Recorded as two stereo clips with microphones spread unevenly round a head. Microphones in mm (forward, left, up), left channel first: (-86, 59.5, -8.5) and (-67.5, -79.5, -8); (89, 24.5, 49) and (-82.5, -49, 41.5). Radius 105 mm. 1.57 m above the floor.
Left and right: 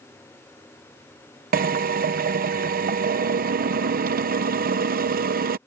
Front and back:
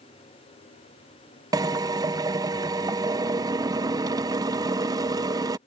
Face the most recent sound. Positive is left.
turn(degrees=-85)